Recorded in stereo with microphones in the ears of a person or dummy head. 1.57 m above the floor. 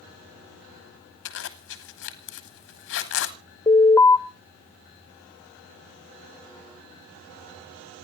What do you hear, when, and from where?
1.2 s a zipper: 65° left (ahead or behind), 1.4 m
3.7 s an alarm: 15° left (ahead or behind), 0.6 m